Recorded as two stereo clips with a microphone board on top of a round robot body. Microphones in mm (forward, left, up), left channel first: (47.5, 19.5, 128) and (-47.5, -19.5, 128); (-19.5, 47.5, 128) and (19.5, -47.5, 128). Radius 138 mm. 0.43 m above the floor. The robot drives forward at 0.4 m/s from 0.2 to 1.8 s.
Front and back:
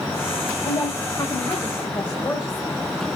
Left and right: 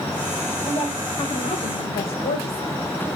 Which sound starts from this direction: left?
A woman speaking, at 0.7 s.